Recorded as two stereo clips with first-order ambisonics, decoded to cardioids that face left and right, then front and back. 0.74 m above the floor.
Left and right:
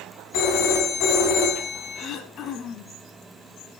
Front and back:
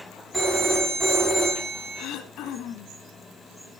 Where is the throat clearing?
35° left, 1.2 m.